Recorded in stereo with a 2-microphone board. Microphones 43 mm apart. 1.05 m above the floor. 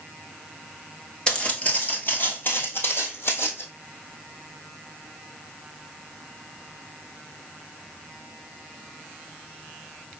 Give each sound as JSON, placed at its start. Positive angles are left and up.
{"t": 1.3, "sound": "footsteps", "side_deg": 20, "distance_m": 1.1}